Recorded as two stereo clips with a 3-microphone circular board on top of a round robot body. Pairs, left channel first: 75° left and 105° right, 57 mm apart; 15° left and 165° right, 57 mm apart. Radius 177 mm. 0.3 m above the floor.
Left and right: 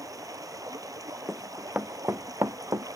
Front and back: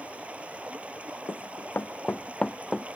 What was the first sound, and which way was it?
Running water, 95° right.